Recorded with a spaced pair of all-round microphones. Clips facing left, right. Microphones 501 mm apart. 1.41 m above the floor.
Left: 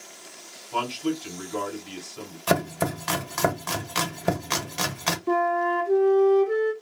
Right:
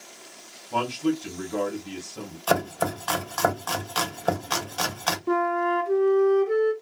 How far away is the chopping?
About 0.7 m.